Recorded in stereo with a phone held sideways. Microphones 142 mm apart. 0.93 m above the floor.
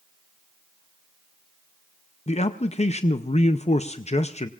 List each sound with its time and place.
2.3 s a man speaking: 50° left (ahead or behind), 0.6 m